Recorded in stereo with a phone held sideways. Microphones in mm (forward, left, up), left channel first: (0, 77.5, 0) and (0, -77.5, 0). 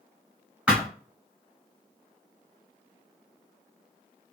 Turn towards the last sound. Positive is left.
turn(degrees=-5)  # may be behind; listen again after turning